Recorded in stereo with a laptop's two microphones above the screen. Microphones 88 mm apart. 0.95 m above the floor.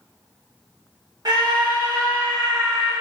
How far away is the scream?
About 0.9 m.